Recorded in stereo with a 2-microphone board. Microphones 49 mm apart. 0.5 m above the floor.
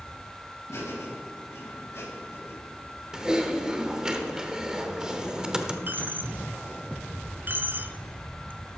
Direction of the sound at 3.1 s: 15° right (ahead or behind).